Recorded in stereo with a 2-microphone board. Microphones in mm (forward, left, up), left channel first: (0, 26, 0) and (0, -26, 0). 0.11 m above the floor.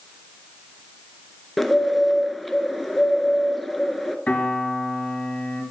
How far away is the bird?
About 0.6 m.